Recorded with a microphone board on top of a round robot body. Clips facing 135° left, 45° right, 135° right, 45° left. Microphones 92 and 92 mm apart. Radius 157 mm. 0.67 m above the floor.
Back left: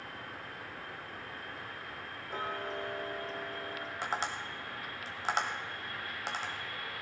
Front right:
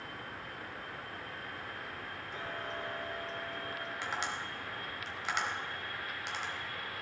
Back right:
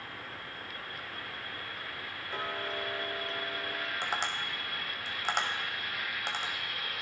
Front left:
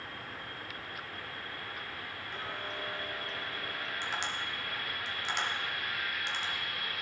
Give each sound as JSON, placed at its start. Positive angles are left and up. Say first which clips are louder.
{"t": 2.3, "sound": "ticking", "louder": "back left 5 dB, back right 5 dB", "azimuth_deg": 180, "distance_m": 1.0}
{"t": 4.0, "sound": "tapping", "louder": "back left 3 dB, back right 2 dB", "azimuth_deg": -175, "distance_m": 1.5}